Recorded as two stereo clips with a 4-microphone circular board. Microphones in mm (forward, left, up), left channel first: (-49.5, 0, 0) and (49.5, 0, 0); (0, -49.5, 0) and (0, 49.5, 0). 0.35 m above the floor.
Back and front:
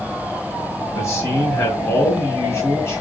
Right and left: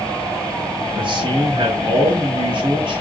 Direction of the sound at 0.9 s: 120° left.